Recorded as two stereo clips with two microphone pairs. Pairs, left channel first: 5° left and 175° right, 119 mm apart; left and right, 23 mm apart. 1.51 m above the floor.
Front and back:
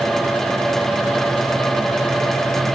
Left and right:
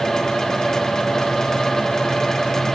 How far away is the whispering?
No whispering in this recording.